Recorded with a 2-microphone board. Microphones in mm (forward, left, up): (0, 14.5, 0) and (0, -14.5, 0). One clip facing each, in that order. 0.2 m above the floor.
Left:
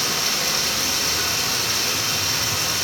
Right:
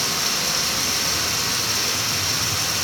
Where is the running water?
5° left (ahead or behind), 1.6 m.